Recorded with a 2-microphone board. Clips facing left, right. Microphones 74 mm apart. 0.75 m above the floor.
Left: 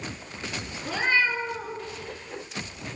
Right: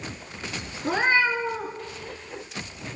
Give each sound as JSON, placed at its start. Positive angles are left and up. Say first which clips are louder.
{"t": 0.8, "sound": "a cat meowing", "louder": "right 3 dB", "side_deg": -40, "distance_m": 2.0}